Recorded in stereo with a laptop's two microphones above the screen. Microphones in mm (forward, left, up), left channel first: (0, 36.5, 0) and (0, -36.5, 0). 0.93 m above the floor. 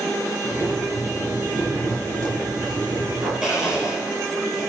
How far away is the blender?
About 3.5 m.